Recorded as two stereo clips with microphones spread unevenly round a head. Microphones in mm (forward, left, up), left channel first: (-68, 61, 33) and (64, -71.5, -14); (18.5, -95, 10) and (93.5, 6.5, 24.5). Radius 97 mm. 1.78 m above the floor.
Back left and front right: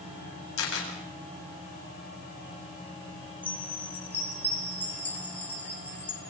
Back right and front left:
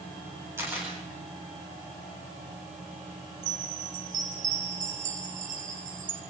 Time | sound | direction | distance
0.6 | a camera shutter | 130° left | 8.5 m
3.4 | a chime | 60° left | 3 m